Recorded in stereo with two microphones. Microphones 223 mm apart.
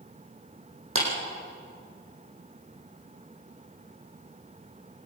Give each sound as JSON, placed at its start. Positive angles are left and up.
{"t": 0.9, "sound": "a clap", "side_deg": -75, "distance_m": 6.0}